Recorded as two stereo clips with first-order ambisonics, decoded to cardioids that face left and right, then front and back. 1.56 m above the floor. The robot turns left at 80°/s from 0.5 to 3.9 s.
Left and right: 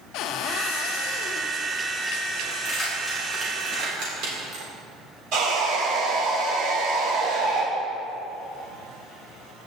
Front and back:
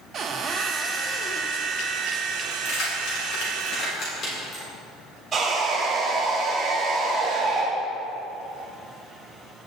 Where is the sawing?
115° right, 2.5 m.